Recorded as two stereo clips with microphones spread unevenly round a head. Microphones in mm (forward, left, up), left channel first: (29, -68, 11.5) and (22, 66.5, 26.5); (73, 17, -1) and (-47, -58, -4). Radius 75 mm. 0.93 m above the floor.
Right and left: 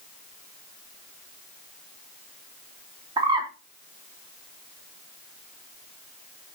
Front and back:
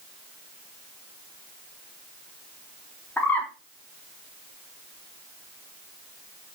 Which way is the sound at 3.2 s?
100° left.